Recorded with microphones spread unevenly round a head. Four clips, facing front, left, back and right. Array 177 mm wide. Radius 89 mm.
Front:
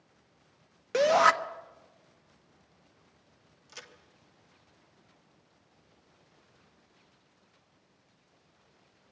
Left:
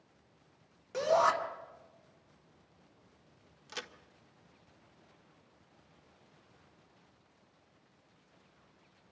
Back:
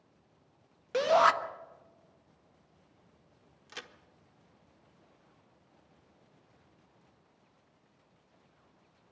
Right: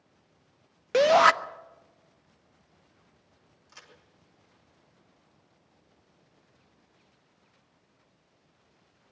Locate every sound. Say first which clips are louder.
0.9 s a shout: right 8 dB, front 2 dB; 75° right, 1.1 m
3.7 s a crack: left 10 dB, back 3 dB; 115° left, 1.5 m